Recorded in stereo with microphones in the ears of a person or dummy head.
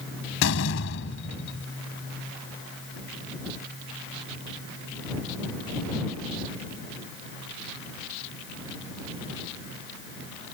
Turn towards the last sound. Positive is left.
turn(degrees=65)  # may be behind; listen again after turning